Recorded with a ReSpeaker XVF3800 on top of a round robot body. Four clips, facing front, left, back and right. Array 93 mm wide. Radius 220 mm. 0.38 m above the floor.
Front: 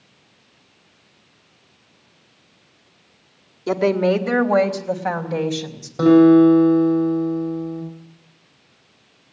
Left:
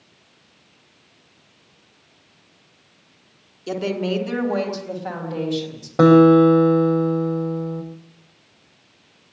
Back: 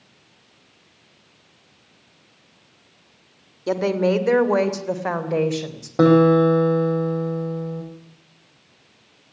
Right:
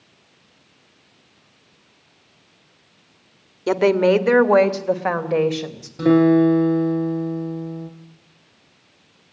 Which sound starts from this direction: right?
A woman speaking, at 3.7 s.